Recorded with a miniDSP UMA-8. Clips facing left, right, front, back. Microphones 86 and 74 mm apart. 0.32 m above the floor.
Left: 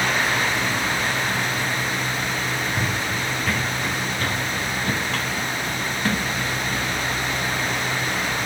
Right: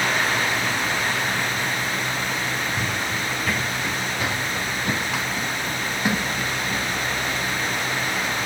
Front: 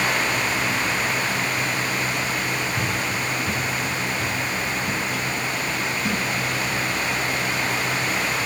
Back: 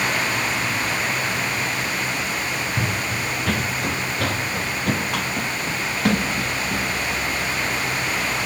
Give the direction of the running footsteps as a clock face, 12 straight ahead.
7 o'clock.